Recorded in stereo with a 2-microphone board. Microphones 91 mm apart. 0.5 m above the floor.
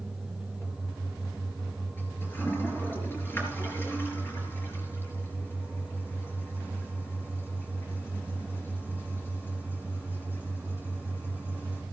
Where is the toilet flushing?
25° left (ahead or behind), 4 m.